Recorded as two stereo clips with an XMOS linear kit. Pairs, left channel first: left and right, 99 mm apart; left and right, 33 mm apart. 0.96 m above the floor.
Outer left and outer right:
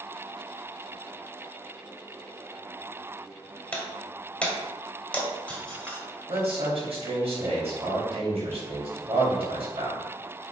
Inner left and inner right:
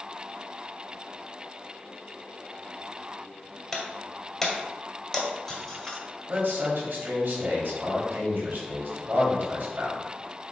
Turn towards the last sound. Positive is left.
turn(degrees=-65)  # may be behind; listen again after turning